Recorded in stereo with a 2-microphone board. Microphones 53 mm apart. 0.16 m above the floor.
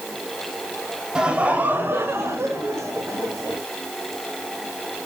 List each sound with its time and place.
1.1 s laughter: 15° right (ahead or behind), 1.3 m; by 3.6 s 70° right (ahead or behind), 3.5 m